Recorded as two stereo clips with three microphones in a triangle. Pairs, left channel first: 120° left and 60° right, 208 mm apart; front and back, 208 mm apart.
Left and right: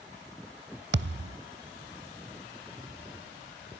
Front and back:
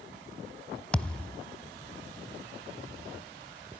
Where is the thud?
85° right, 0.6 m.